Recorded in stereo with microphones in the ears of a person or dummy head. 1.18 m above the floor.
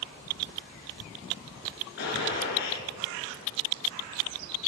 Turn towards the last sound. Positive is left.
turn(degrees=55)  # may be behind; listen again after turning